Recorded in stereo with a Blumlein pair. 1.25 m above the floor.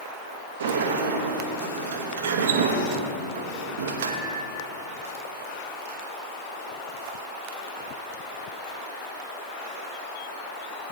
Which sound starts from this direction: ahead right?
A sliding door, at 0.6 s.